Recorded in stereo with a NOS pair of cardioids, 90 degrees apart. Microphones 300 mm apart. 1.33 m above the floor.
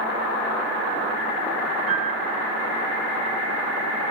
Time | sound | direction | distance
1.9 | a piano | 55° right | 3.5 m